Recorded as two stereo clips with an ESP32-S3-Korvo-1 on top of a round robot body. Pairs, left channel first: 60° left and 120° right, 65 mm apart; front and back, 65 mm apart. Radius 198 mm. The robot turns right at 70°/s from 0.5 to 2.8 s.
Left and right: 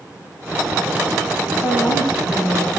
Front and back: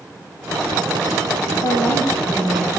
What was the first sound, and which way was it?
A woman speaking, 15° left.